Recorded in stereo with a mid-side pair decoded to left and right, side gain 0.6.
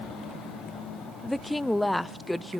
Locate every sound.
1.2 s a woman speaking: 5° left, 0.6 m